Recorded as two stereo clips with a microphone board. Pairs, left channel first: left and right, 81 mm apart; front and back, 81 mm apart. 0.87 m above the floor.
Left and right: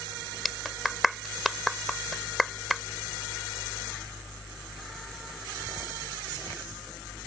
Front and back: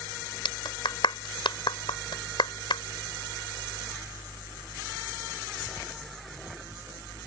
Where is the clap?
Straight ahead.